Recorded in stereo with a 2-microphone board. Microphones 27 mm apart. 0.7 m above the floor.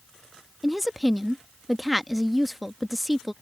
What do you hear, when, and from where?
0.6 s a woman speaking: 5° right (ahead or behind)